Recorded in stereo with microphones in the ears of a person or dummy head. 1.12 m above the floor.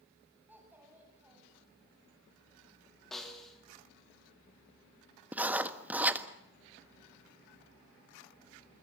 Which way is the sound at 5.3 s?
10° right (ahead or behind).